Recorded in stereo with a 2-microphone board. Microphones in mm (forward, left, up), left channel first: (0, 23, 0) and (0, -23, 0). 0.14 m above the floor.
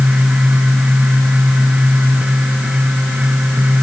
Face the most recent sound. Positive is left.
No sound to turn to.